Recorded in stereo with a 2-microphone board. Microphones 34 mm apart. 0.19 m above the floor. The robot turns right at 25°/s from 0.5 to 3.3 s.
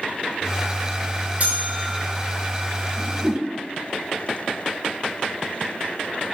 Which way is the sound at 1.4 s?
45° right (ahead or behind).